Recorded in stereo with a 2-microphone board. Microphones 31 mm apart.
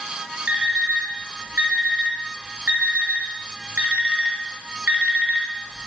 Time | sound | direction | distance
0.5 | an alarm clock | 60° right (ahead or behind) | 1.4 m